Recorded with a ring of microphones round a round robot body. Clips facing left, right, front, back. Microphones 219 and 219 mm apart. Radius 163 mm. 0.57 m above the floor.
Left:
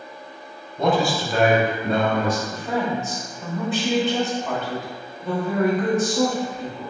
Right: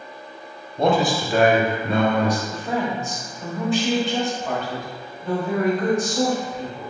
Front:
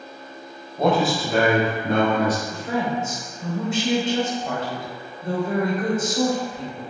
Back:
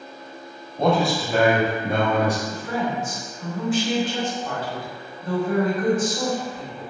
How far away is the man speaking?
About 0.8 m.